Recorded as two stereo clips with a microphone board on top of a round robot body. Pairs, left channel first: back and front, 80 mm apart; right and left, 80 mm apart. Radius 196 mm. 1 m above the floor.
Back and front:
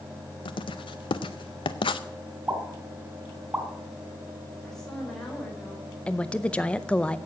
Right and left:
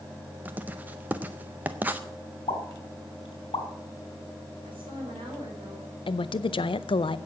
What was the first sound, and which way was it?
Writing, 160° left.